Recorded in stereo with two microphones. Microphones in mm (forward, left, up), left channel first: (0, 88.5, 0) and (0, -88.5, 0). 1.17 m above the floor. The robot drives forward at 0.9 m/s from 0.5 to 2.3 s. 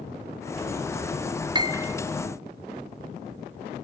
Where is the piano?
25° right (ahead or behind), 0.6 m; by 2.0 s 15° right (ahead or behind), 0.9 m.